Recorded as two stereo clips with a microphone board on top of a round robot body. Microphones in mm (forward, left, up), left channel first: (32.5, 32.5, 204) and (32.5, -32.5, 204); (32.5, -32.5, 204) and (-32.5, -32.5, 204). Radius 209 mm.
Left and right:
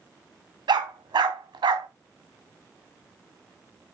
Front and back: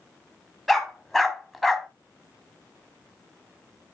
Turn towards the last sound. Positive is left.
turn(degrees=-90)